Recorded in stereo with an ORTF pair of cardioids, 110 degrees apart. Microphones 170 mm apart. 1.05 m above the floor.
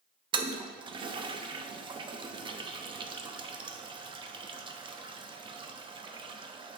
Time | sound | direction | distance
0.3 | a toilet flushing | 30° right | 0.6 m